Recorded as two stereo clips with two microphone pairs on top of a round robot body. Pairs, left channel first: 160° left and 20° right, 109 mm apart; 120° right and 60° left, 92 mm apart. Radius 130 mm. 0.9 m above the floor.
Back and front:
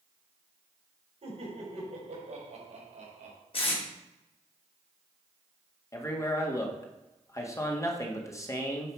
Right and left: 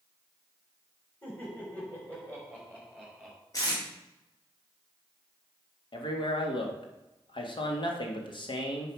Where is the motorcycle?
No motorcycle in this recording.